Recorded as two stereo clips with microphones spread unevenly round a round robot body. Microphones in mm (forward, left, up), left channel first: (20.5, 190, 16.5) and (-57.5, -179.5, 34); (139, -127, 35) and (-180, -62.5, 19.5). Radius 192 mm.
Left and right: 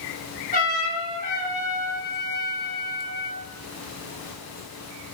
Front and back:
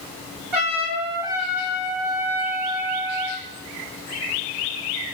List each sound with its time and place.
0.5 s a trumpet: 145° left, 2.5 m